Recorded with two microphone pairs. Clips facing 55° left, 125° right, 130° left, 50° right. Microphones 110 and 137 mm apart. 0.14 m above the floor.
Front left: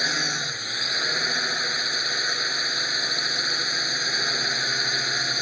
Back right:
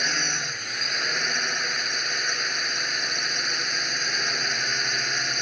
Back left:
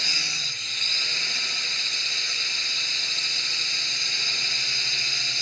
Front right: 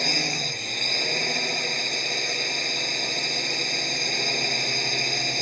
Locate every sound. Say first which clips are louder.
0.0 s a drone: front left 1 dB, front right 11 dB; 30° right